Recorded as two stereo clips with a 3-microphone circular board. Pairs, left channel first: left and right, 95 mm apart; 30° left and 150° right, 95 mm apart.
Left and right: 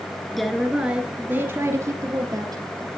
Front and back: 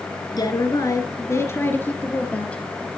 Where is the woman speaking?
5° left, 1.9 m; by 2.6 s 45° right, 3 m.